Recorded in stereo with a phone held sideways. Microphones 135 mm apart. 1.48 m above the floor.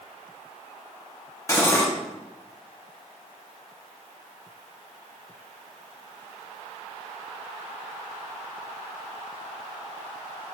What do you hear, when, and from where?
1.5 s cutlery clinking: 20° left (ahead or behind), 1.3 m